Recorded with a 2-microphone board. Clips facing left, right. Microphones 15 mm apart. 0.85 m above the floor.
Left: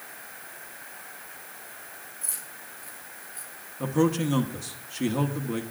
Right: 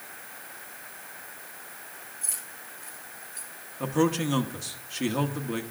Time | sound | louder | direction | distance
2.2 | keys jangling | right 1 dB | 15° right (ahead or behind) | 4.5 m
3.8 | a man speaking | left 1 dB | 15° right (ahead or behind) | 0.9 m